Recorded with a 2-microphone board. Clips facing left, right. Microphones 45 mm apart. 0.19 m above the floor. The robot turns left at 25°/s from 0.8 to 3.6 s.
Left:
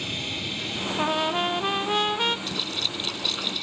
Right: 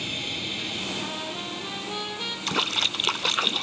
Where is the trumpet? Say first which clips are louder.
Left 8 dB; 80° left, 1.0 m; by 2.4 s 45° left, 1.0 m.